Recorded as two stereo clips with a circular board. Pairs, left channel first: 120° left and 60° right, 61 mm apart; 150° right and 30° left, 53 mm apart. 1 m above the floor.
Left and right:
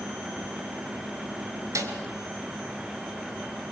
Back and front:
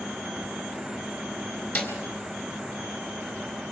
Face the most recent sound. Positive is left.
turn(degrees=-95)